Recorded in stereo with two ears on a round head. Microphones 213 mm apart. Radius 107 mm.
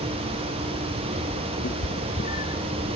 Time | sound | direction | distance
1.6 | a cat meowing | 30° left (ahead or behind) | ?